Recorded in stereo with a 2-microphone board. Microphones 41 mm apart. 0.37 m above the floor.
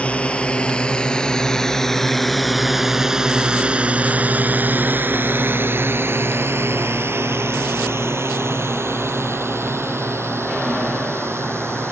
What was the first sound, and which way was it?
A drone, 30° left (ahead or behind).